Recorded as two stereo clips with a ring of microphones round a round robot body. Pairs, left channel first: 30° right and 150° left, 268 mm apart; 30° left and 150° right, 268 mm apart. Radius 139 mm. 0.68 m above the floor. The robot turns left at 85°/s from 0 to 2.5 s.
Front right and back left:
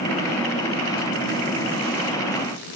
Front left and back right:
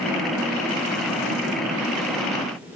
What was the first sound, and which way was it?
Only background noise.